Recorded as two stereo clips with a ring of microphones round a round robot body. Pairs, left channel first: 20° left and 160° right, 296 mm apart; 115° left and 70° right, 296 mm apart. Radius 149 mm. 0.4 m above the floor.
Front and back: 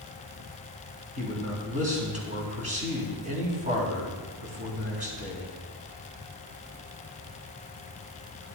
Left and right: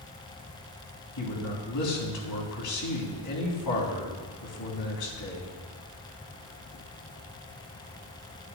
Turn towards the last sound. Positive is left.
turn(degrees=135)